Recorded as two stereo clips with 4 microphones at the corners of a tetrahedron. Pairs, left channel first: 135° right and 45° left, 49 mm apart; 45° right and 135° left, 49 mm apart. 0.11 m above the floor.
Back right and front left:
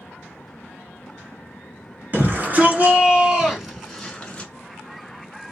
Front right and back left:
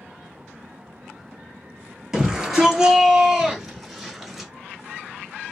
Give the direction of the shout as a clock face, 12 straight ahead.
10 o'clock.